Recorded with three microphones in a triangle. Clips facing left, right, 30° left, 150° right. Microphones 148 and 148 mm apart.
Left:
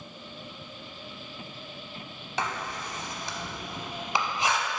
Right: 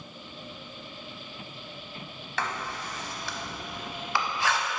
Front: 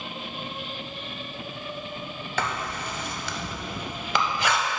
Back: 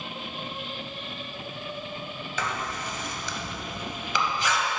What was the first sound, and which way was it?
Writing, 20° left.